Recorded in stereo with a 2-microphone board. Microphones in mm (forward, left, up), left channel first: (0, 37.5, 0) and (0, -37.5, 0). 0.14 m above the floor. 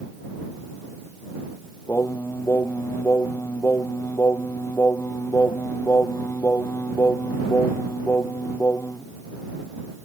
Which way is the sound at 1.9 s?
30° left (ahead or behind).